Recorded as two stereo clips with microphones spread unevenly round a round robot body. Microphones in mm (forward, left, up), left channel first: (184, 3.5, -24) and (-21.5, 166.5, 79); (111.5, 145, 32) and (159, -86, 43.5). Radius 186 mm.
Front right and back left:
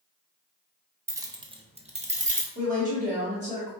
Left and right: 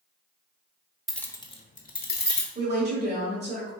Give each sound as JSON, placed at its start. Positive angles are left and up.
{"t": 1.1, "sound": "keys jangling", "azimuth_deg": 15, "distance_m": 0.6}
{"t": 2.5, "sound": "a woman speaking", "azimuth_deg": -140, "distance_m": 1.3}